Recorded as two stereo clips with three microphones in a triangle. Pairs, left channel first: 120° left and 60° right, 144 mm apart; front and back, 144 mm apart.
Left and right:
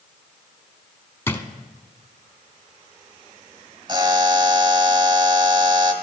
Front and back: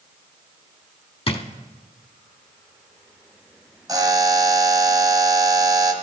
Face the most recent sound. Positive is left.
turn(degrees=-120)